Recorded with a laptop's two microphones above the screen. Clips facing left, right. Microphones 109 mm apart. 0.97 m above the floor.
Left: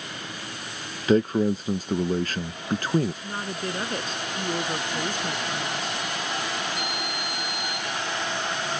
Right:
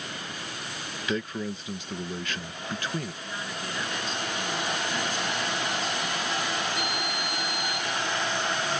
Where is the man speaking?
40° left (ahead or behind).